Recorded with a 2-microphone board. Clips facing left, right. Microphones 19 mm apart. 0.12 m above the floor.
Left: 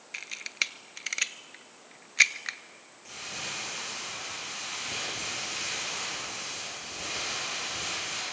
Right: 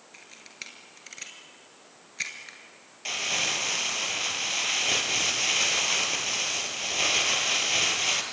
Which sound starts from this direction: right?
Crumpling, at 3.0 s.